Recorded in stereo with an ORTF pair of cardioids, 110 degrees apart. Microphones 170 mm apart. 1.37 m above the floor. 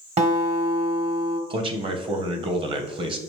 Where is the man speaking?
30° right, 0.9 m.